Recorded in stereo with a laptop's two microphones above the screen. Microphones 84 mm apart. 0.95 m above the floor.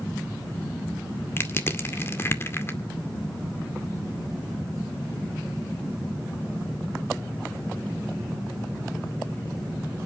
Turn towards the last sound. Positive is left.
turn(degrees=30)  # may be behind; listen again after turning